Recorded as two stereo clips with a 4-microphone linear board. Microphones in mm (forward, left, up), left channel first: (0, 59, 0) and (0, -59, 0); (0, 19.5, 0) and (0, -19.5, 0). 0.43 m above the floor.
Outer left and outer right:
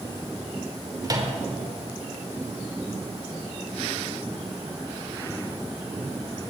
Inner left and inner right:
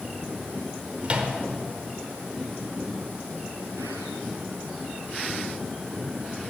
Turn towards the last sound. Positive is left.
turn(degrees=-30)  # may be behind; listen again after turning